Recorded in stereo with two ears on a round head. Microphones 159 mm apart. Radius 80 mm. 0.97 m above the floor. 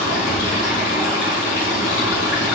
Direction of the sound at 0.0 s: 75° left (ahead or behind).